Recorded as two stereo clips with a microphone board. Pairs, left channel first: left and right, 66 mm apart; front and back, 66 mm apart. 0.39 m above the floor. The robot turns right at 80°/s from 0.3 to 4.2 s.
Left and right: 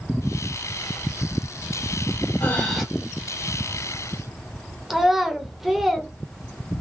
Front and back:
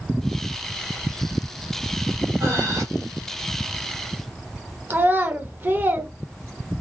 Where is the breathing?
145° left, 2.5 m; by 2.8 s straight behind, 2.5 m.